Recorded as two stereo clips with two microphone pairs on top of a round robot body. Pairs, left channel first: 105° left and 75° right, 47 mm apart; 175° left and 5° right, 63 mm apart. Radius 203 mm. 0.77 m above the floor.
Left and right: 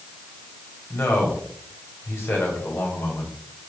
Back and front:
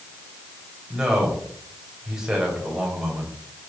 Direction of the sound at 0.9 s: 75° left.